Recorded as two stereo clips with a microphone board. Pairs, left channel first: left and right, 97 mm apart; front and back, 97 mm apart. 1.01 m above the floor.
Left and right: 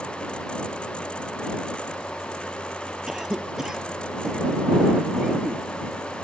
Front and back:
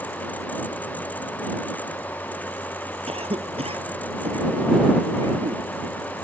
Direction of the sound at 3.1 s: 175° right.